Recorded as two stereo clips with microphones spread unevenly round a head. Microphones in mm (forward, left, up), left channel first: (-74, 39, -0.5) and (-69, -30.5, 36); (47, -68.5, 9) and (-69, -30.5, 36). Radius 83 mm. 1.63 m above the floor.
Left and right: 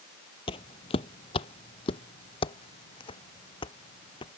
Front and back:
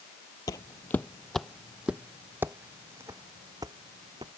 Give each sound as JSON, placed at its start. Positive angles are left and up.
{"t": 0.5, "sound": "footsteps", "azimuth_deg": 60}